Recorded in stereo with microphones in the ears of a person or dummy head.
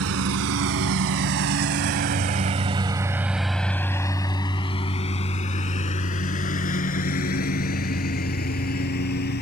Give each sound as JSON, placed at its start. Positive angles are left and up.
{"t": 0.0, "sound": "a lawn mower", "side_deg": -75}